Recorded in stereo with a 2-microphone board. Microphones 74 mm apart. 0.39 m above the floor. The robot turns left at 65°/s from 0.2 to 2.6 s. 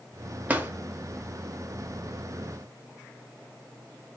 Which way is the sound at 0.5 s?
20° right (ahead or behind).